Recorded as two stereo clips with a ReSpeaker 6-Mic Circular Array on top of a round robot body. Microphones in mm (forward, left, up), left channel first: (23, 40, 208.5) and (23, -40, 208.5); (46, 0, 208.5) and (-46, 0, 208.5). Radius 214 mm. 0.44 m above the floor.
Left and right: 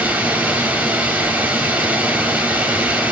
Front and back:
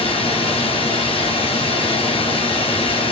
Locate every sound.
0.0 s running water: 15° right, 2.5 m